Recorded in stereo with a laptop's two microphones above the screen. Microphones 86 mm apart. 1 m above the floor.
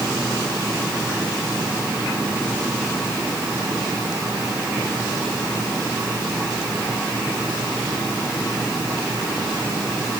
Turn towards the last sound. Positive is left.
No sound to turn to.